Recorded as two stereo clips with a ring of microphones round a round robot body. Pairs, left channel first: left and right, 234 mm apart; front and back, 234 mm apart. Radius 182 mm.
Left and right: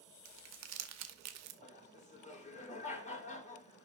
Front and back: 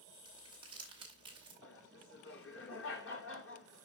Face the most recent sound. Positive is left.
turn(degrees=30)